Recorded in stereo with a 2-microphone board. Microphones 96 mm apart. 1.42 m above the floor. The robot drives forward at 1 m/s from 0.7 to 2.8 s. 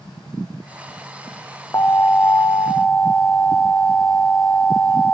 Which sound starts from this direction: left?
An alarm, at 1.7 s.